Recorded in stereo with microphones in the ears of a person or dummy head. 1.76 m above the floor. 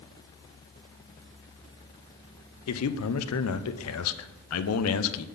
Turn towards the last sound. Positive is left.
turn(degrees=80)